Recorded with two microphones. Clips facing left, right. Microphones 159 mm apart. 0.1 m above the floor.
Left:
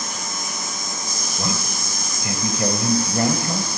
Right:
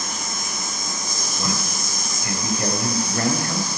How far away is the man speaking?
About 1.9 m.